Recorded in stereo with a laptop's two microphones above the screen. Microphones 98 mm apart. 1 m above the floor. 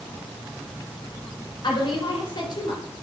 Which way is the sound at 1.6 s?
50° left (ahead or behind).